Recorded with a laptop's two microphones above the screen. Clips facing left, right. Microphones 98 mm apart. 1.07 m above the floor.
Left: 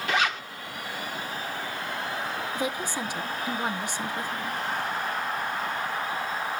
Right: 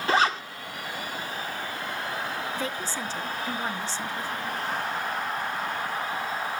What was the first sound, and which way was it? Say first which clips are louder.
A zipper: right 4 dB; 35° right (ahead or behind).